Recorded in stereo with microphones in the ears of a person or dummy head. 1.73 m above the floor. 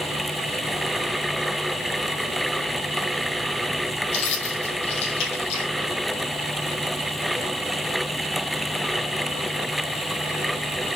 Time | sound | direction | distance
4.1 | keys jangling | 30° left (ahead or behind) | 6.5 m